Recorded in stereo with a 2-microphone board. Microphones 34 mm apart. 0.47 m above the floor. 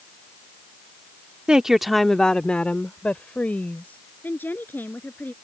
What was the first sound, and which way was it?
A woman speaking, 25° right (ahead or behind).